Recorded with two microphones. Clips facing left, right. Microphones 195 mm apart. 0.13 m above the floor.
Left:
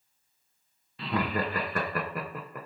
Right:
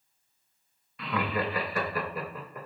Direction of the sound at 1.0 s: 30° left (ahead or behind).